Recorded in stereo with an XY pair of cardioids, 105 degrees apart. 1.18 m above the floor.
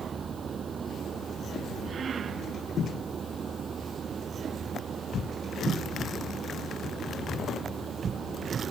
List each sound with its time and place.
0.0 s a machine running: 50° right